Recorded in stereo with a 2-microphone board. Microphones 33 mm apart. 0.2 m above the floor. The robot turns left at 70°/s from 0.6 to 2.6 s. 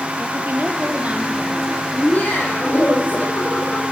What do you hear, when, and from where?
0.2 s a woman speaking: 100° right, 5.5 m; by 1.8 s 175° left, 5.5 m
1.9 s laughter: 120° left, 8 m; by 3.8 s 75° left, 8 m